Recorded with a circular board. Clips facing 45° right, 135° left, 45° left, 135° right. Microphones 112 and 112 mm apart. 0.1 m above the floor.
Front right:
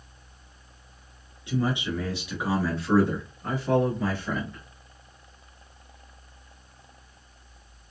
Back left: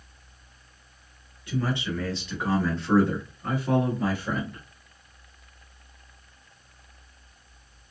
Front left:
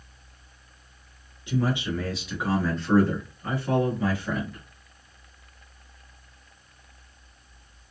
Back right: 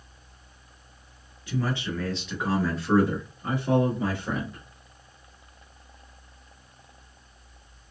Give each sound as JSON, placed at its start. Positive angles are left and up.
{"t": 1.5, "sound": "a man speaking", "azimuth_deg": 0, "distance_m": 1.4}